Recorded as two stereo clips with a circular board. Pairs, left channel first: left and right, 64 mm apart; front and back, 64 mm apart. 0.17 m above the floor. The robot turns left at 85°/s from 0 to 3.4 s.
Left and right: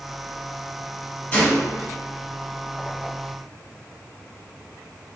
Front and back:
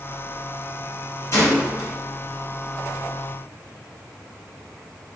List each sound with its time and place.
1.3 s a gunshot: 30° left, 2.0 m; by 1.9 s 20° right, 2.0 m